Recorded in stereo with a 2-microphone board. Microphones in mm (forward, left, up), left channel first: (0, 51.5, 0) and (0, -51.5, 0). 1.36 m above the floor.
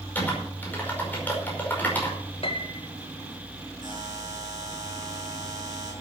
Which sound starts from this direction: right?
A buzzer, at 3.8 s.